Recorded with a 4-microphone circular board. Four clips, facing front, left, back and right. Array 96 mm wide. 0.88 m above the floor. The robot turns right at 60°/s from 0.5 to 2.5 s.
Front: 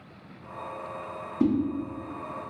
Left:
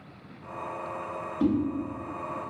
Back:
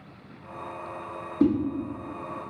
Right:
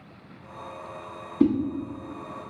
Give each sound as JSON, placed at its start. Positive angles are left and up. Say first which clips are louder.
{"t": 1.4, "sound": "a whoosh", "louder": "right 5 dB, back 3 dB", "azimuth_deg": -70, "distance_m": 1.3}